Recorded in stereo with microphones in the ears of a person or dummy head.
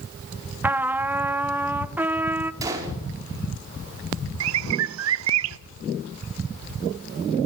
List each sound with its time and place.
0.6 s a trumpet: 10° right (ahead or behind), 0.9 m
2.6 s a gunshot: 20° right (ahead or behind), 5 m
4.4 s a bird: 80° right, 0.6 m